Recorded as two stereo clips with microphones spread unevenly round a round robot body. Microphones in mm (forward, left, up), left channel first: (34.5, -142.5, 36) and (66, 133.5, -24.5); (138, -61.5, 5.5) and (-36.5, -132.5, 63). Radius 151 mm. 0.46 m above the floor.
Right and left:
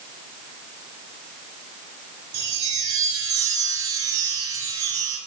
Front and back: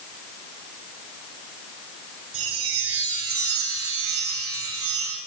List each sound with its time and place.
2.3 s a chime: 160° left, 6.5 m